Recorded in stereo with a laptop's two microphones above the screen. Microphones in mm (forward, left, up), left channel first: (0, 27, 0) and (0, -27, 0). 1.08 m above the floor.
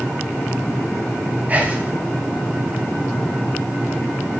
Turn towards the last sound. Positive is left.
turn(degrees=-30)  # may be behind; listen again after turning